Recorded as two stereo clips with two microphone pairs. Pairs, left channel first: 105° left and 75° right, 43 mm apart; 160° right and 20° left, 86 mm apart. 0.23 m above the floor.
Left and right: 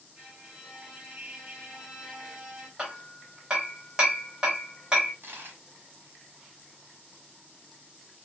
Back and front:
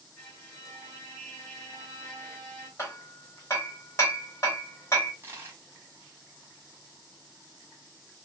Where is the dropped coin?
45° right, 1.0 m.